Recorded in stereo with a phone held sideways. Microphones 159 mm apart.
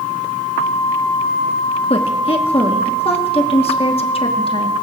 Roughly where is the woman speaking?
Left.